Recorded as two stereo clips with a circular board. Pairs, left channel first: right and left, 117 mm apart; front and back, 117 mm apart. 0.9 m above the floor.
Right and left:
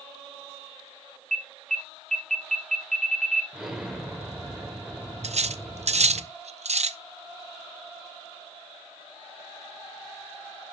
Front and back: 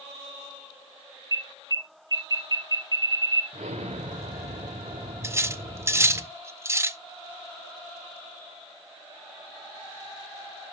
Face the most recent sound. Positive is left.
turn(degrees=115)